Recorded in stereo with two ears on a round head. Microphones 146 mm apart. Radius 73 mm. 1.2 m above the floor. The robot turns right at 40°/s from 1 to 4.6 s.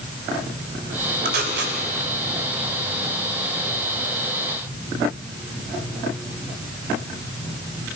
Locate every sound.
1.2 s tape being pulled: 65° right (ahead or behind), 3 m; by 1.8 s 80° right, 3 m